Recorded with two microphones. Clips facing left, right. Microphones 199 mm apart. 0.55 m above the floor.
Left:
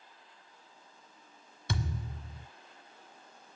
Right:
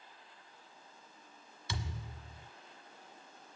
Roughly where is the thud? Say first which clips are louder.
Left 7 dB; left.